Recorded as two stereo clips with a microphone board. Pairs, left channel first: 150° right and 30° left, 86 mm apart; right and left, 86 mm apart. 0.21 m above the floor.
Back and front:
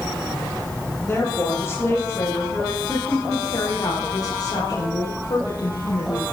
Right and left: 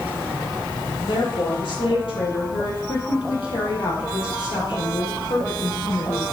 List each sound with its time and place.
1.0 s a woman speaking: 85° right, 6 m; by 6.3 s 125° right, 5.5 m